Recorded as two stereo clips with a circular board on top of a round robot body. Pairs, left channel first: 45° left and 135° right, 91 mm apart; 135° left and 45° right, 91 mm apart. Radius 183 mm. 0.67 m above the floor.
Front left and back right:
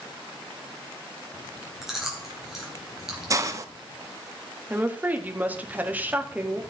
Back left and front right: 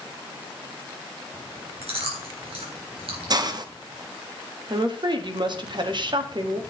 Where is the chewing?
50° right, 3.5 m.